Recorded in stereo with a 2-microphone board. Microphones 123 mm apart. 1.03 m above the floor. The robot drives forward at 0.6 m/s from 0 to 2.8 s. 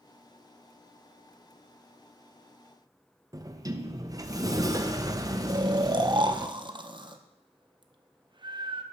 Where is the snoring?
40° right (ahead or behind), 0.7 m.